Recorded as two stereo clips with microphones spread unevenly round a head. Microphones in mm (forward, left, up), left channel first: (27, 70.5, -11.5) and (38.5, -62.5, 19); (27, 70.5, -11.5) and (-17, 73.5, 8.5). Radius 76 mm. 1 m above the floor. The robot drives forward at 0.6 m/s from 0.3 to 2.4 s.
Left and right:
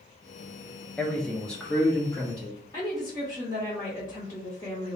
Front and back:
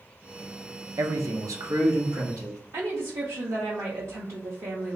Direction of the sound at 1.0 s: 165° left.